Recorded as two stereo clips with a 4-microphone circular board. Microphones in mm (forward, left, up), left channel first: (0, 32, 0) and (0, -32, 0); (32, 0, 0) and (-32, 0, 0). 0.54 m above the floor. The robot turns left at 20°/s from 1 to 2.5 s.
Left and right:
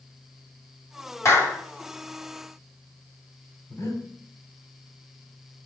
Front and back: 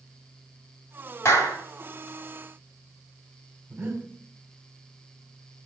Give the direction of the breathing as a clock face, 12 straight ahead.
8 o'clock.